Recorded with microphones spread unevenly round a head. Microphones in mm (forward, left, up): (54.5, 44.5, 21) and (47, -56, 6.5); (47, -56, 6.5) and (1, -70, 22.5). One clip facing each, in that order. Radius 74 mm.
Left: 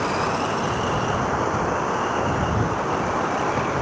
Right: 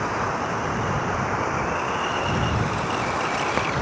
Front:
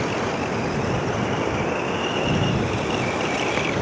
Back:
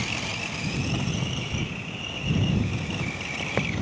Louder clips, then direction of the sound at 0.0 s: Left 2 dB, front 7 dB; 10° left.